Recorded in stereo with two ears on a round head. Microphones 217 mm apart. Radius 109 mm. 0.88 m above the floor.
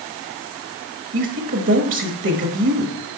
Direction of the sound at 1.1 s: 50° right (ahead or behind).